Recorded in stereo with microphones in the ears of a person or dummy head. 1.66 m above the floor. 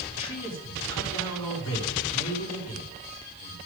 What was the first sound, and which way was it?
A man speaking, 20° left (ahead or behind).